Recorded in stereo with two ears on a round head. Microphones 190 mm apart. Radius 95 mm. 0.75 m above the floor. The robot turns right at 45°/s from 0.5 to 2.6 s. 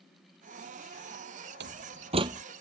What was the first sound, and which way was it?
A door slam, 55° right (ahead or behind).